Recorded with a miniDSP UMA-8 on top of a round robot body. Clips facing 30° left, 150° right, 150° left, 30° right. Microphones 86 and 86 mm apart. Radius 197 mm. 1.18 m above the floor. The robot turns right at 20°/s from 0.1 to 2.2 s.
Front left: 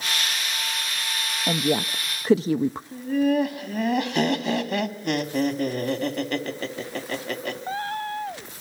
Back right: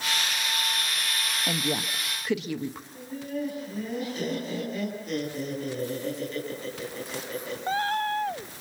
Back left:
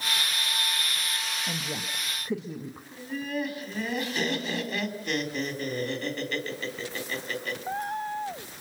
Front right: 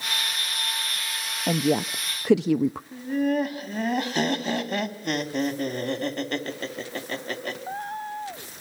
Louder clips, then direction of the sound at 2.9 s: Front left 13 dB, front right 4 dB; 10° left.